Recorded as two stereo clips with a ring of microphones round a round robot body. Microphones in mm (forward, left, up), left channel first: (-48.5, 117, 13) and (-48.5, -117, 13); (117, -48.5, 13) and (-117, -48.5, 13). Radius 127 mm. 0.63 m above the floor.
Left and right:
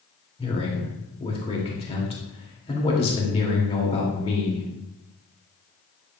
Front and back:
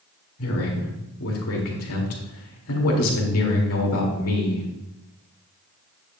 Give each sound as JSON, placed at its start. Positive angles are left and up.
{"t": 0.4, "sound": "a man speaking", "azimuth_deg": 25, "distance_m": 2.0}